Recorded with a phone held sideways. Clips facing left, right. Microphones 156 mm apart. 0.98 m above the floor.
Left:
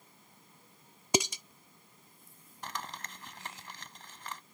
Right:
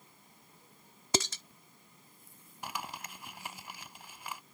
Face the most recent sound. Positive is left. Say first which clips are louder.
# right 1 dB
turn(degrees=-10)  # may be behind; listen again after turning